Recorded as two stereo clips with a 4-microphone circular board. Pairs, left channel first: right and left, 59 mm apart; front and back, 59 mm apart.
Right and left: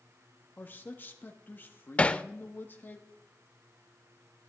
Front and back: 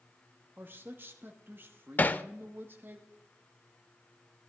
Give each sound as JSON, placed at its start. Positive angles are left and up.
{"t": 0.6, "sound": "a man speaking", "azimuth_deg": -140, "distance_m": 1.1}
{"t": 2.0, "sound": "hammering", "azimuth_deg": -40, "distance_m": 0.5}